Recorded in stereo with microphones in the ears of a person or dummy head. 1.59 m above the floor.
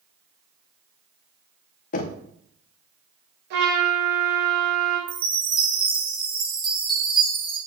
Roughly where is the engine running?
No engine running in this recording.